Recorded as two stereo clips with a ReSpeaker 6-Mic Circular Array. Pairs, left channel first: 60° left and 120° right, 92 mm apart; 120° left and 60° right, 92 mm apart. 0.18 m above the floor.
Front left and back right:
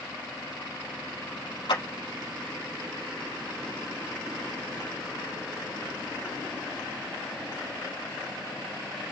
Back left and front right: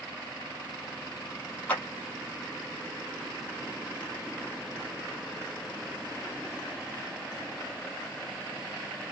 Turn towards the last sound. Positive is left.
turn(degrees=55)